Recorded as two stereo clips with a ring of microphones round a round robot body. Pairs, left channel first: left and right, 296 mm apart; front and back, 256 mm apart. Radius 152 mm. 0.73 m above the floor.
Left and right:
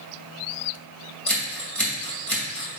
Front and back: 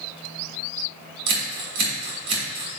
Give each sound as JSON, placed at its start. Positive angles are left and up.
{"t": 1.3, "sound": "scissors", "azimuth_deg": 175, "distance_m": 2.5}